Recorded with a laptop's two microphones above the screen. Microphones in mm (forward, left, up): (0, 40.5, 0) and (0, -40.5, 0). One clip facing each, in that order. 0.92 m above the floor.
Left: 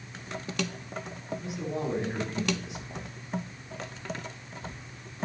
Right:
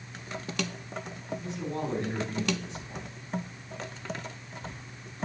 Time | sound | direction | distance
1.4 | a man speaking | 15° left (ahead or behind) | 3 m